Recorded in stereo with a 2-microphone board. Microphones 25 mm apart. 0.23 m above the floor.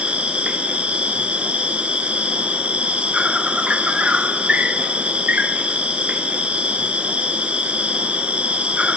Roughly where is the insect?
Right.